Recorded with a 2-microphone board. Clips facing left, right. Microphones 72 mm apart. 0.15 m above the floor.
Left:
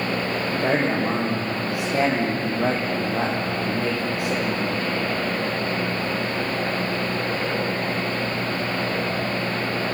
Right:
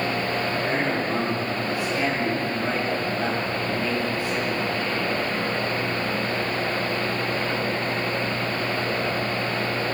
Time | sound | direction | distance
0.5 | a man speaking | 80° left | 8 m